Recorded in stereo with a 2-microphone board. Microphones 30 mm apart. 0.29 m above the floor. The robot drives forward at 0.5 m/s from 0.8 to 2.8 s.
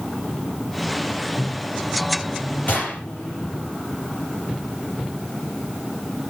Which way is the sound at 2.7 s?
70° left (ahead or behind).